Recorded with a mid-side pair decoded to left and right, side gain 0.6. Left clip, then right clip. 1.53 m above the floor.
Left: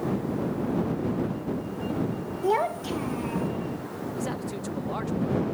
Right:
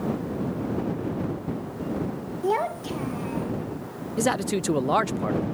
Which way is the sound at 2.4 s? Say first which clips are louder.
Even; straight ahead.